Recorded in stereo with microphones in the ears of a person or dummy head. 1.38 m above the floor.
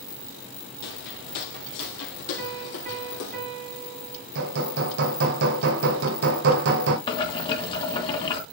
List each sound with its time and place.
0.8 s footsteps: 55° left (ahead or behind), 2 m; by 3.4 s 65° left (ahead or behind), 3.5 m
2.4 s a piano: 40° right (ahead or behind), 5 m
4.3 s hammering: 50° right (ahead or behind), 1.8 m
7.1 s boiling: 30° left (ahead or behind), 2 m